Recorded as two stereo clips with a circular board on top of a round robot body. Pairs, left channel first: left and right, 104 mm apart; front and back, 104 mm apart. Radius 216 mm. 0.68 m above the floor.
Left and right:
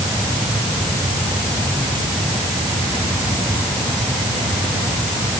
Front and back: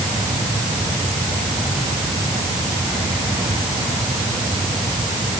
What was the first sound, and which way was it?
Only background noise.